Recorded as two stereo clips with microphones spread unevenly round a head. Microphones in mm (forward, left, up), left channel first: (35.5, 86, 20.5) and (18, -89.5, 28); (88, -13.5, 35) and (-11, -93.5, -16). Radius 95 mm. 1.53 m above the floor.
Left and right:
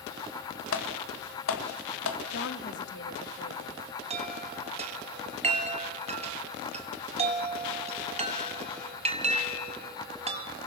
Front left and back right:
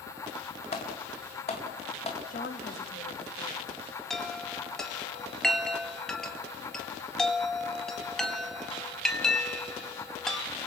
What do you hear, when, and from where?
0.7 s typing on a keyboard: 95° left, 2 m
2.3 s a woman speaking: 65° left, 1.9 m
4.1 s a chime: 40° right, 1.8 m